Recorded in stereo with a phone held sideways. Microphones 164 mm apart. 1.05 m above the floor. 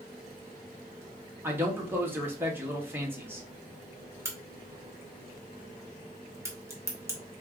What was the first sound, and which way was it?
A man speaking, 15° right (ahead or behind).